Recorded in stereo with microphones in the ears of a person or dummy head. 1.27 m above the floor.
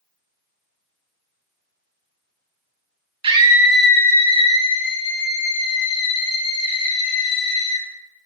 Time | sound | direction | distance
3.2 | a scream | 30° right (ahead or behind) | 0.9 m